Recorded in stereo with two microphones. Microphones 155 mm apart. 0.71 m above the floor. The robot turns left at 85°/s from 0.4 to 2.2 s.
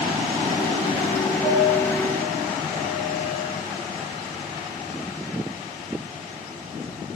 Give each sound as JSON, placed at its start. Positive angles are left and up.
{"t": 1.4, "sound": "a piano", "azimuth_deg": 145, "distance_m": 5.5}